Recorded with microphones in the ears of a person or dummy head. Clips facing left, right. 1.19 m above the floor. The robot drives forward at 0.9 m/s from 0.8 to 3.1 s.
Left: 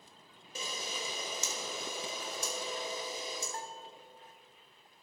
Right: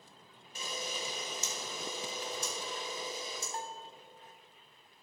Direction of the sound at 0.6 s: 65° left (ahead or behind).